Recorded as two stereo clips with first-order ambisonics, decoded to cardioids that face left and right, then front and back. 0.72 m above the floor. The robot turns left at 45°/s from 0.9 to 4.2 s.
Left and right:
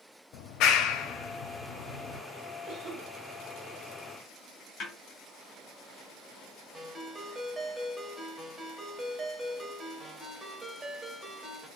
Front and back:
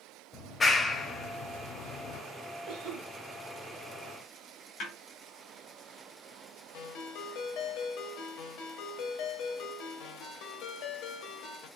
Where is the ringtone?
5° right, 0.9 m.